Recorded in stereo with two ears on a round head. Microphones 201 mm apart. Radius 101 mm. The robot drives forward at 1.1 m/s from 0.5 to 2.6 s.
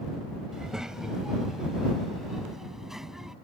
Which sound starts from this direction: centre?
A child speaking, at 0.5 s.